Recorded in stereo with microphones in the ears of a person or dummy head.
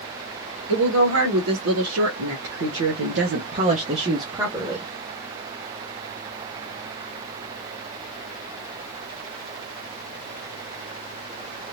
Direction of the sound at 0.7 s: 70° right (ahead or behind).